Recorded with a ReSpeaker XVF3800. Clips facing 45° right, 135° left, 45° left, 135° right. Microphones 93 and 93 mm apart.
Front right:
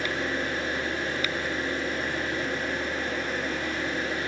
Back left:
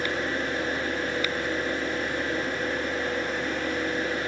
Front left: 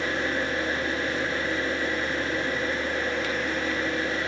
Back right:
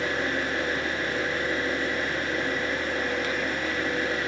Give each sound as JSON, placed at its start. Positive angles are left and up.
{"t": 0.0, "sound": "an engine running", "azimuth_deg": 100, "distance_m": 3.5}